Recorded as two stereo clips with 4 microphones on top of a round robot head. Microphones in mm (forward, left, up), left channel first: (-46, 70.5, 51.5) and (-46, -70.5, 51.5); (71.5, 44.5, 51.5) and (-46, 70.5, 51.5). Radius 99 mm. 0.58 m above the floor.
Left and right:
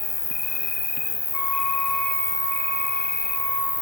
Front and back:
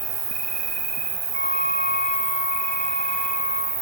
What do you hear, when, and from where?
0.0 s an insect: 170° left, 2.5 m
1.3 s a flute: 165° left, 4.5 m